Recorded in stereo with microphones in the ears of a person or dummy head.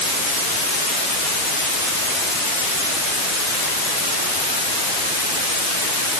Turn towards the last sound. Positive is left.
No sound to turn to.